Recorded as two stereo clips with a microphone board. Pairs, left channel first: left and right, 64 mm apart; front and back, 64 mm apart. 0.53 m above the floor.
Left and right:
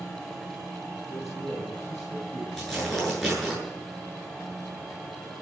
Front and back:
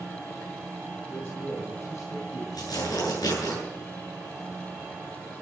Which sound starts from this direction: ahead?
Tearing paper, at 2.5 s.